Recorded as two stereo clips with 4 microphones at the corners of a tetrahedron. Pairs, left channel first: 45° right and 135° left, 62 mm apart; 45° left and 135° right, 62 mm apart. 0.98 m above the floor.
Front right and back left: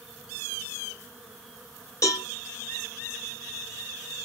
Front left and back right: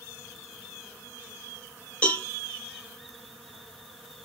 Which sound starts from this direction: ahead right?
A cowbell, at 2.0 s.